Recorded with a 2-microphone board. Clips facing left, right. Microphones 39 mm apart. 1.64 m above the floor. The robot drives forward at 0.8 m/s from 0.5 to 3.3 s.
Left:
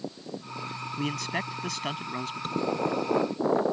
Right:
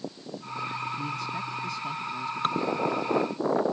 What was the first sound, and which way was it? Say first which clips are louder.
A man speaking: left 1 dB; 75° left (ahead or behind).